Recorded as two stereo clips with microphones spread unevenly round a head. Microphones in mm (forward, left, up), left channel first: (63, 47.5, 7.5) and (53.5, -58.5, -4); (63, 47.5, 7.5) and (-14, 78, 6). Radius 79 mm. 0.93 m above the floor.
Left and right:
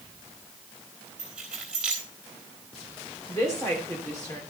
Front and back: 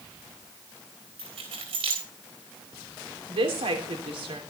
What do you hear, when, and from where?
1.2 s keys jangling: straight behind, 3.5 m
3.3 s a woman speaking: 160° left, 3 m